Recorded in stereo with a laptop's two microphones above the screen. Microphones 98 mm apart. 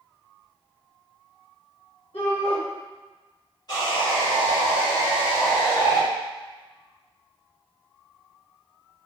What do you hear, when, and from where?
2.1 s a shout: 65° left (ahead or behind), 1.8 m
3.7 s sawing: 40° left (ahead or behind), 1.7 m